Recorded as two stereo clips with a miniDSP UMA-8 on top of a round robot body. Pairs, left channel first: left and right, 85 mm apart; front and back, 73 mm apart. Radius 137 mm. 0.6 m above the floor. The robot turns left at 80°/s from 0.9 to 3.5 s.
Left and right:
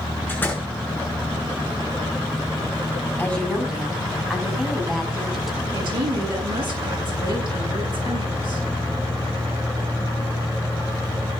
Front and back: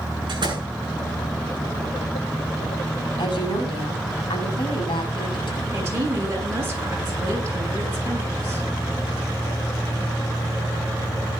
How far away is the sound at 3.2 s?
About 6 m.